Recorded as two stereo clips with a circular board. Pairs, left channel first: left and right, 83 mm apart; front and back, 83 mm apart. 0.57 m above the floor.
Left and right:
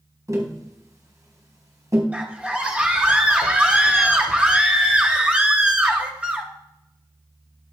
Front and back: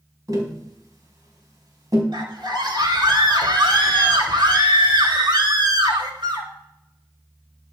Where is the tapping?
135° right, 4 m.